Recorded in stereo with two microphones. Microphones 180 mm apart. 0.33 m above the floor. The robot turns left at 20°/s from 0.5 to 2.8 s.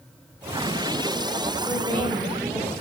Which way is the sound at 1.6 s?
15° left (ahead or behind).